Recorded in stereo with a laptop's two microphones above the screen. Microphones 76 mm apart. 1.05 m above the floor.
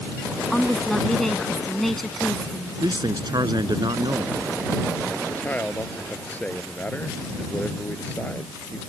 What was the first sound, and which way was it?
A woman speaking, 5° left (ahead or behind).